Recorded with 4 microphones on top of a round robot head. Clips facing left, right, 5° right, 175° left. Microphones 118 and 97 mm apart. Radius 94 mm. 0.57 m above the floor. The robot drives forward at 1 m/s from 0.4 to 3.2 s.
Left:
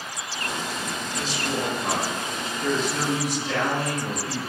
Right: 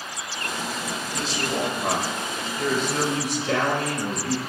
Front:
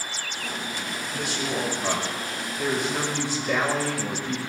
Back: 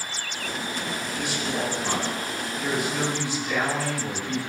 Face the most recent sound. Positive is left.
turn(degrees=-55)